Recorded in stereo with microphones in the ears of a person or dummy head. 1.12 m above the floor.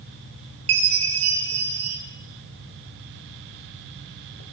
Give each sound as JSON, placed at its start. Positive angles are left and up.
{"t": 0.7, "sound": "a chime", "side_deg": -40, "distance_m": 1.8}